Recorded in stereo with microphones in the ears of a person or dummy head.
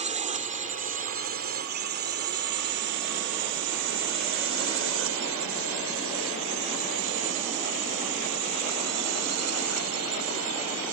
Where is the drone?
35° right (ahead or behind); by 10.9 s 85° right.